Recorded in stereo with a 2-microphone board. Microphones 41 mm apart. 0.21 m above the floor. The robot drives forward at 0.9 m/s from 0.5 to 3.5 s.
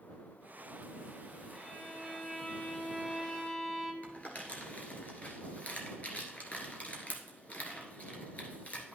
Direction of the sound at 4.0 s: 40° left (ahead or behind).